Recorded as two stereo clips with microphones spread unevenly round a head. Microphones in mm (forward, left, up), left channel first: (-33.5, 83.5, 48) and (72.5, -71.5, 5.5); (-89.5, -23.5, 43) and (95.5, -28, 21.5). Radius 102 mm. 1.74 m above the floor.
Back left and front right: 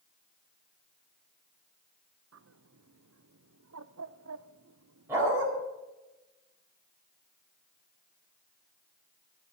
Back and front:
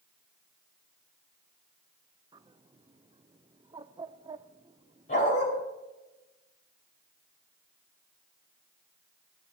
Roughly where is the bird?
Right.